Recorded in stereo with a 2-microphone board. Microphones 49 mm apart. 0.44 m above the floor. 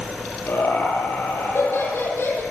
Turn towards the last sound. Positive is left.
turn(degrees=60)  # may be behind; listen again after turning